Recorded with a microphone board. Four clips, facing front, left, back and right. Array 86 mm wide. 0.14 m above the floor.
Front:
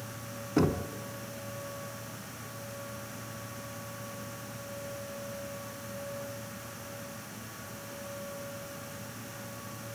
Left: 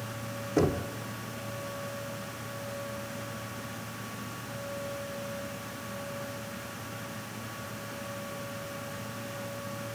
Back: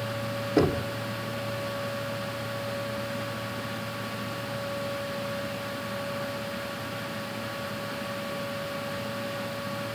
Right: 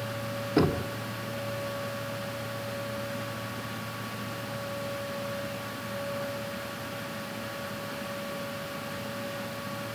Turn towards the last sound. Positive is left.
turn(degrees=-110)